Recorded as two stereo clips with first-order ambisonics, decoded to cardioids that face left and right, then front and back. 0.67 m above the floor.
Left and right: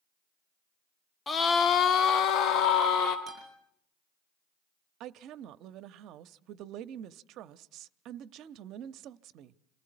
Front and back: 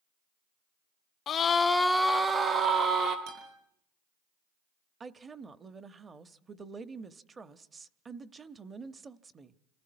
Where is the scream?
30° left, 0.8 m; by 3.2 s 130° left, 1.4 m.